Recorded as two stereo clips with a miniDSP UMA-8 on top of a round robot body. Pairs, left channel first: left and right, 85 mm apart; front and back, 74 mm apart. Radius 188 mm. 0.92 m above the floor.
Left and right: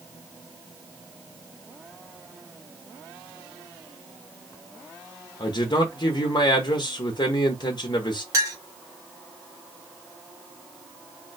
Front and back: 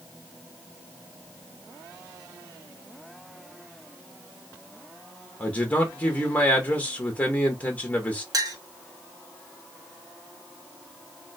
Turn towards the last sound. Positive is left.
turn(degrees=-145)